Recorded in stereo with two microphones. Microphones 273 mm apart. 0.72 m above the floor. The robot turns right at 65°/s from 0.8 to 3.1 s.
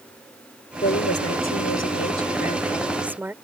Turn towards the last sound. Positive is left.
turn(degrees=-175)